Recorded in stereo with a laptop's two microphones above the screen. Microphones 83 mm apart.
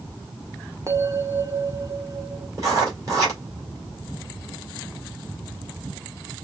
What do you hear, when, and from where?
0.9 s a bell: 35° right (ahead or behind), 0.9 m
2.6 s writing: 40° right (ahead or behind), 2.5 m